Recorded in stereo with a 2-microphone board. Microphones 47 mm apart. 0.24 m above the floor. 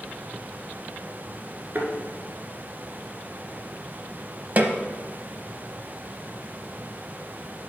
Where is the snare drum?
35° right (ahead or behind), 0.7 m.